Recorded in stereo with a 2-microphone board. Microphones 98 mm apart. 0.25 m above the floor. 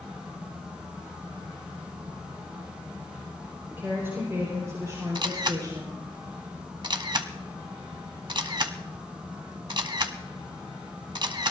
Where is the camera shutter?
50° right (ahead or behind), 0.9 m.